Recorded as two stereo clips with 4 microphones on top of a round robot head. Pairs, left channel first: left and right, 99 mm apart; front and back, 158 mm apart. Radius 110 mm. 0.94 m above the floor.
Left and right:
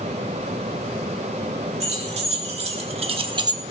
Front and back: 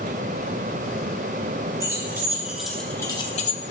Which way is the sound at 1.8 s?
105° right.